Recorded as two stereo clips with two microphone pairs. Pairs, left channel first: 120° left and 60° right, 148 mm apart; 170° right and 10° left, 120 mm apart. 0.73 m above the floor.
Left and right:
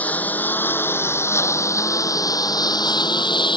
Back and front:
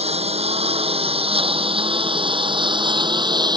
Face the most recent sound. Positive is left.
turn(degrees=60)